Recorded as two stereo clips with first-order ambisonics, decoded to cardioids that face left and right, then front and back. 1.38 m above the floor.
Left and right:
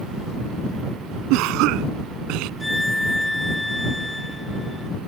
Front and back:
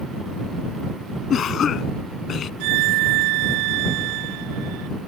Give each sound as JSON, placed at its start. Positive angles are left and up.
{"t": 1.3, "sound": "a cough", "azimuth_deg": -60}
{"t": 2.6, "sound": "a violin", "azimuth_deg": 175}